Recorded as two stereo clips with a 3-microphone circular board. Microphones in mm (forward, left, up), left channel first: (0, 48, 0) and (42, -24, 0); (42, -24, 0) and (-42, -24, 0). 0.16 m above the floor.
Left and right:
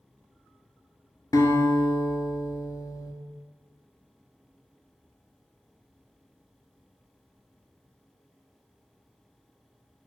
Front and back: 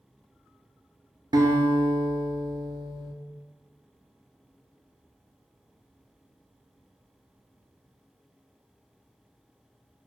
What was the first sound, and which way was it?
A guitar, 155° left.